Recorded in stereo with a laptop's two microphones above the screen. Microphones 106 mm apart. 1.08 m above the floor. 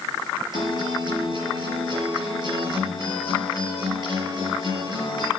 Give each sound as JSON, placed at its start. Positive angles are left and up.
{"t": 0.5, "sound": "a guitar", "side_deg": -50, "distance_m": 5.5}